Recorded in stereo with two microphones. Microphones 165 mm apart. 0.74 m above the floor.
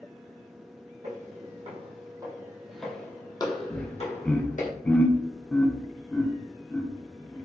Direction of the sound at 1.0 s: 55° right (ahead or behind).